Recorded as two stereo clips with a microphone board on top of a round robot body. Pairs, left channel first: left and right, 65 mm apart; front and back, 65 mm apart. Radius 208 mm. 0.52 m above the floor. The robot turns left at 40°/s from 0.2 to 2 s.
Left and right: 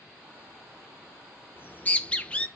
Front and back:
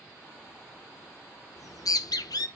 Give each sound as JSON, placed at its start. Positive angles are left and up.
{"t": 1.6, "sound": "a bird", "azimuth_deg": 35, "distance_m": 0.8}